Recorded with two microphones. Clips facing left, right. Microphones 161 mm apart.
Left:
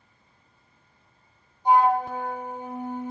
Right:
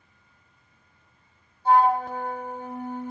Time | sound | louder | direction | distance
1.6 | a flute | even | 15° left (ahead or behind) | 2 m